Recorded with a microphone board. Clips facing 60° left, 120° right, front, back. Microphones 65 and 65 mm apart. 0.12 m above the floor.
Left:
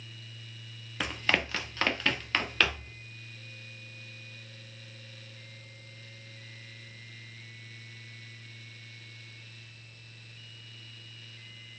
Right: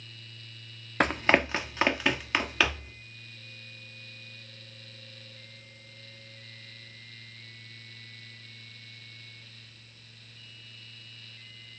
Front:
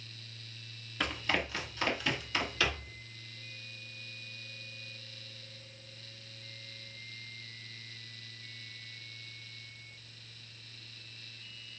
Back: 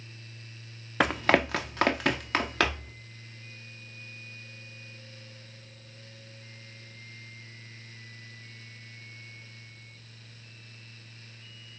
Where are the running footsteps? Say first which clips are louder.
Right 6 dB, back 10 dB; 160° right, 0.6 m; by 2.9 s 155° left, 2.5 m.